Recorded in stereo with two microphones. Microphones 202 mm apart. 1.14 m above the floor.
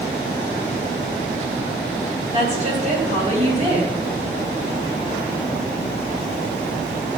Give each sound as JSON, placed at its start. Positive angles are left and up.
{"t": 2.3, "sound": "a woman speaking", "side_deg": -35, "distance_m": 7.5}